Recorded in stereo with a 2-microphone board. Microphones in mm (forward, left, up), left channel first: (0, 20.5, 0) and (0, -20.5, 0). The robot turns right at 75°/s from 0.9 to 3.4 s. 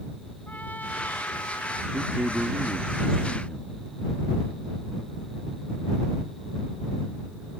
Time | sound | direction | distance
0.5 | a trumpet | 45° left | ?
1.9 | a man speaking | 80° right | ?